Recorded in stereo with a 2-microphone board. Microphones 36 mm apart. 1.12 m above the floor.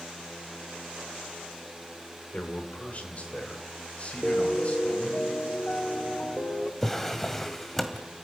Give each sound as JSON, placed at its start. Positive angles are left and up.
{"t": 2.3, "sound": "a man speaking", "side_deg": 40, "distance_m": 3.0}
{"t": 4.2, "sound": "a piano", "side_deg": 40, "distance_m": 1.5}
{"t": 6.8, "sound": "a drawer", "side_deg": 10, "distance_m": 1.6}